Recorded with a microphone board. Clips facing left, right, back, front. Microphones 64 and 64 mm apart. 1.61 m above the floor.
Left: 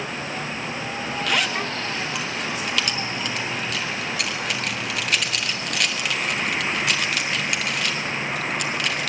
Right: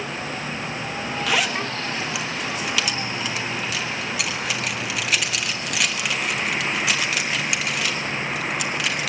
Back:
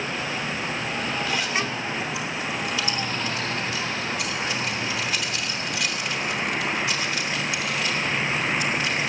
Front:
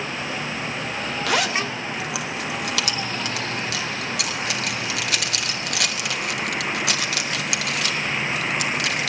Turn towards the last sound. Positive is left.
turn(degrees=-5)